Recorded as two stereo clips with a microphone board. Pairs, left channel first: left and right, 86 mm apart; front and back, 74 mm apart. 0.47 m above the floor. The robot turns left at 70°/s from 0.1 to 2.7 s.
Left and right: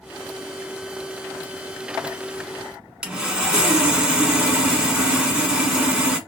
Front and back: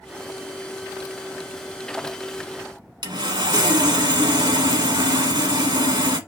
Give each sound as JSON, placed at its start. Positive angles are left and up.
{"t": 3.0, "sound": "sawing", "azimuth_deg": -170, "distance_m": 1.2}